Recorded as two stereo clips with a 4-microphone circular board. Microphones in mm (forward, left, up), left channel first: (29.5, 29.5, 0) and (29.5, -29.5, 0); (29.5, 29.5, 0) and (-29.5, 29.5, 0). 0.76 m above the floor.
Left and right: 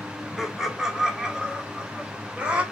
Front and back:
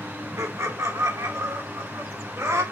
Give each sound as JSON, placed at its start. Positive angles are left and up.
{"t": 0.4, "sound": "laughter", "azimuth_deg": -175, "distance_m": 2.0}